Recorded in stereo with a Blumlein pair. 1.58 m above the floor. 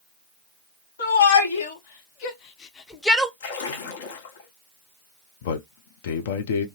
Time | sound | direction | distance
1.0 | a shout | 70° left | 1.6 m
3.4 | a splash | 55° left | 0.9 m
5.4 | a man speaking | 55° left | 0.7 m